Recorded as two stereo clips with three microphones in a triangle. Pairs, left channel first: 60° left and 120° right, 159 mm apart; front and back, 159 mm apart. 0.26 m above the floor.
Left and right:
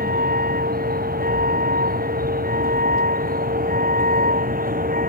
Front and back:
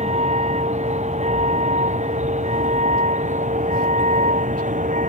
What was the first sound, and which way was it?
A vehicle, 135° right.